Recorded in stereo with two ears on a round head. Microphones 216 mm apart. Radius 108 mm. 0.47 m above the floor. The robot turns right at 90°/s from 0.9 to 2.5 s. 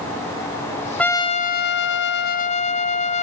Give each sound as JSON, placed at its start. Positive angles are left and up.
{"t": 1.0, "sound": "a trumpet", "azimuth_deg": 5, "distance_m": 0.7}